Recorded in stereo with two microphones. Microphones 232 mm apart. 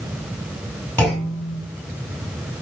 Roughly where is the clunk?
Centre.